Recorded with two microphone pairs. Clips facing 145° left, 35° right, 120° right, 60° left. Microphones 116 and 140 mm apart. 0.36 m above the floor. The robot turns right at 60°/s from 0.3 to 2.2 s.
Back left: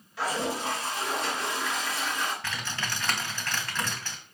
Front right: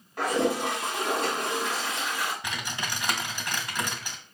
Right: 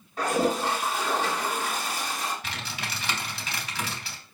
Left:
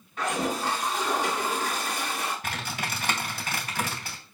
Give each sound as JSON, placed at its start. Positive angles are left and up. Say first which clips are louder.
{"t": 0.2, "sound": "a toilet flushing", "louder": "front right 5 dB, right 4 dB", "azimuth_deg": -70, "distance_m": 3.5}
{"t": 2.4, "sound": "typing on a keyboard", "louder": "front right 1 dB, left 3 dB", "azimuth_deg": 35, "distance_m": 2.0}